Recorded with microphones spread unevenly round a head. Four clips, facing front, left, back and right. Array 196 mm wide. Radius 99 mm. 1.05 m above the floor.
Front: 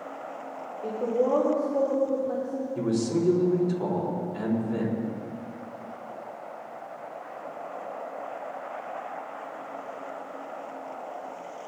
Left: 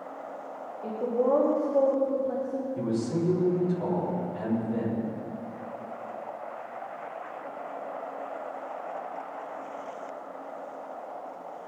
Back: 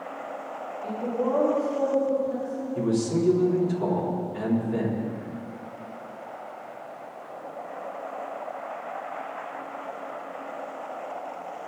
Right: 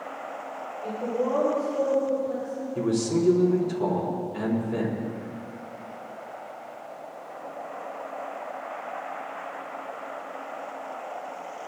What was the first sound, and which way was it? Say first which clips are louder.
A woman speaking: left 2 dB, front 2 dB; 30° left.